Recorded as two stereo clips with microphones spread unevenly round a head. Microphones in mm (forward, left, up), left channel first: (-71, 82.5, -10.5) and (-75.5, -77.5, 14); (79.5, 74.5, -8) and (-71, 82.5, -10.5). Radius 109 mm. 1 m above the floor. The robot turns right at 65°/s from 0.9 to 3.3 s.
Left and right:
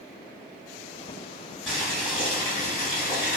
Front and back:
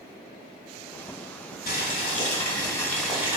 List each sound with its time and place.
1.7 s boiling: 5° right, 1.7 m; by 3.4 s 105° left, 1.7 m